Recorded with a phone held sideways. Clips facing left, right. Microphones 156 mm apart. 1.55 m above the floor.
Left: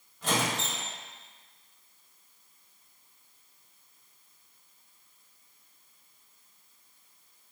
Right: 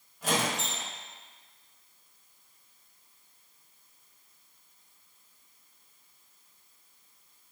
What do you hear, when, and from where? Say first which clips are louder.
0.2 s a squeak: even; 10° right (ahead or behind), 1.1 m